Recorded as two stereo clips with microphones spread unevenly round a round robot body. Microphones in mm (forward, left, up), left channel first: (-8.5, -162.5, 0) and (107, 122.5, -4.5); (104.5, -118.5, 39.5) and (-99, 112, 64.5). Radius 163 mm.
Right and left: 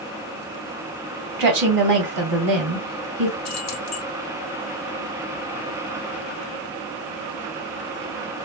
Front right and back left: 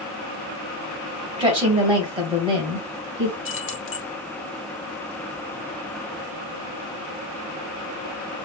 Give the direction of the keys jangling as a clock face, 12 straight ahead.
3 o'clock.